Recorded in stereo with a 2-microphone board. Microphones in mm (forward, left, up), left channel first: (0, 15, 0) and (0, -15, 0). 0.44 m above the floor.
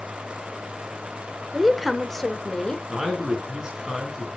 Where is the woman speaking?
5° right (ahead or behind), 1.3 m; by 2.8 s 30° left (ahead or behind), 1.3 m.